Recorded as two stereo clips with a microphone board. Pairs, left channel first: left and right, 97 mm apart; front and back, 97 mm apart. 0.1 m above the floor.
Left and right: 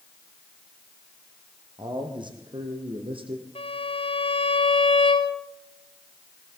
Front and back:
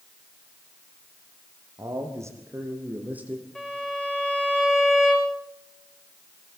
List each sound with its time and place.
1.8 s a man speaking: 125° right, 4 m; by 3.5 s 100° right, 3 m
3.5 s a violin: 85° left, 3.5 m